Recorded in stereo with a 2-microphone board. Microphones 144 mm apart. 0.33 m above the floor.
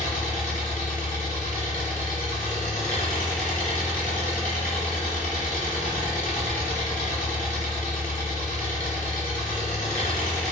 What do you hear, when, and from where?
0.0 s an engine running: 70° left (ahead or behind), 1.3 m